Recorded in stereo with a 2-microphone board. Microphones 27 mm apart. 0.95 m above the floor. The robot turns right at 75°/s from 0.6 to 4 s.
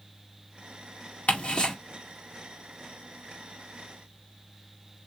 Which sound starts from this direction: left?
Ticking, at 1.3 s.